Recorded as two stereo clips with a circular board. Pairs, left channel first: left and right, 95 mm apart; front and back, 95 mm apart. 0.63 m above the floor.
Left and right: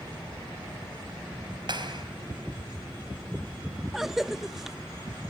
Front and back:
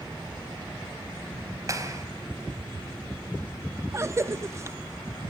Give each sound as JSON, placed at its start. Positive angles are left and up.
{"t": 1.7, "sound": "a clap", "azimuth_deg": -125, "distance_m": 4.0}
{"t": 3.9, "sound": "a cough", "azimuth_deg": -175, "distance_m": 0.6}